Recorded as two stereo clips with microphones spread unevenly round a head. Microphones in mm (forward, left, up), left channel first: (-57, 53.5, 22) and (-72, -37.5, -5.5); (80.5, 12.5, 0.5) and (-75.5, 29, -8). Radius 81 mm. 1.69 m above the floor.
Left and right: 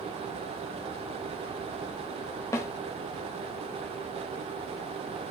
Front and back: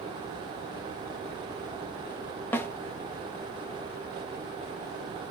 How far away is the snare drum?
About 1.2 m.